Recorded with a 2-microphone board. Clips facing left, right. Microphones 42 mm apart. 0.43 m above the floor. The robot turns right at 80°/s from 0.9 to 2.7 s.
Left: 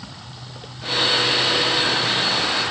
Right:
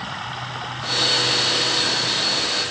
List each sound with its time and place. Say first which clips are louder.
0.0 s running water: right 10 dB; 55° right; by 2.7 s 90° left